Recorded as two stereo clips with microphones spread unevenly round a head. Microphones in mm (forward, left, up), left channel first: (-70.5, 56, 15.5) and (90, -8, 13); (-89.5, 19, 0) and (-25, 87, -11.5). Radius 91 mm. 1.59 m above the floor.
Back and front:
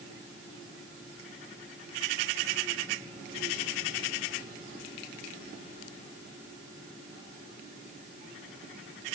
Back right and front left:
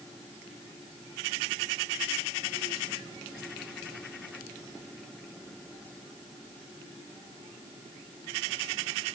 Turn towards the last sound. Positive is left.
No sound to turn to.